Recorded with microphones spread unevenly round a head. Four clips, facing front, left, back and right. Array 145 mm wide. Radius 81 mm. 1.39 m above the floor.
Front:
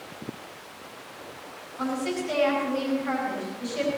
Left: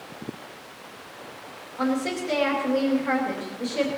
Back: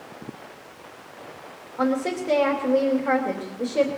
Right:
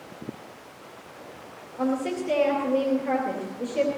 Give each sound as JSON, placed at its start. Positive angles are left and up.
{"t": 1.8, "sound": "a woman speaking", "azimuth_deg": -165, "distance_m": 2.5}